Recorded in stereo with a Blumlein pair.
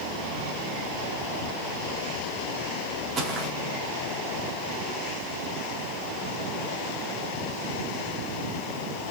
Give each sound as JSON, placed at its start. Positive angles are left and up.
{"t": 3.2, "sound": "footsteps", "azimuth_deg": -30, "distance_m": 4.5}